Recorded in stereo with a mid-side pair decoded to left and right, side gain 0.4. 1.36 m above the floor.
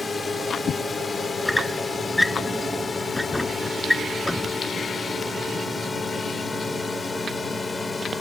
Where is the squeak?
10° left.